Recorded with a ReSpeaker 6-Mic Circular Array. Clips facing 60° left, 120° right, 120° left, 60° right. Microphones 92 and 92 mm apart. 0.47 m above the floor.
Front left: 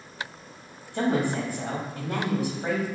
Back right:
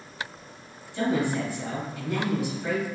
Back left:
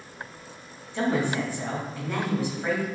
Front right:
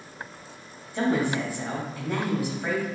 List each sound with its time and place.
0.9 s a woman speaking: 20° left, 2.5 m